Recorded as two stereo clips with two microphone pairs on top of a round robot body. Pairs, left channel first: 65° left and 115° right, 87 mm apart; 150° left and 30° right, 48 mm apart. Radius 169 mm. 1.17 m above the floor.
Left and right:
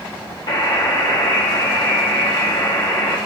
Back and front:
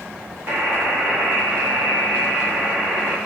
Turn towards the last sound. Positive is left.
turn(degrees=15)